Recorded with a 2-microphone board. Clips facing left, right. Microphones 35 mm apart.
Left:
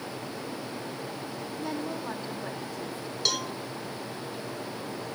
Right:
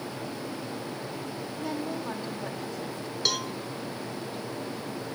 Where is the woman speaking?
Centre (ahead or behind), 2.5 m.